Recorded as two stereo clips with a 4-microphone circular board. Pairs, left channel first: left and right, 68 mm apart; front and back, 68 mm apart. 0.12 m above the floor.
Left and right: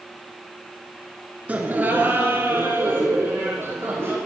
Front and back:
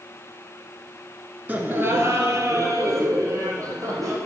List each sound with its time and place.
1.5 s laughter: 140° right, 1.3 m; by 4.2 s 145° right, 4.5 m